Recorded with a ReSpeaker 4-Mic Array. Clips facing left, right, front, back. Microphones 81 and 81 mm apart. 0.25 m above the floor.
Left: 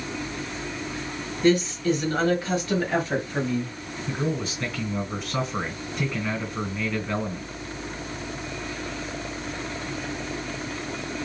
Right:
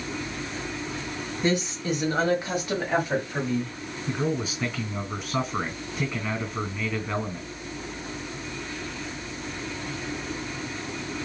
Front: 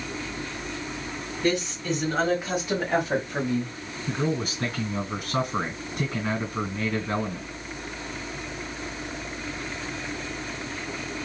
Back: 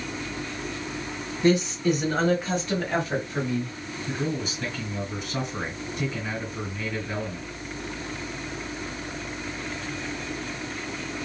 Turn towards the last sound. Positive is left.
turn(degrees=-10)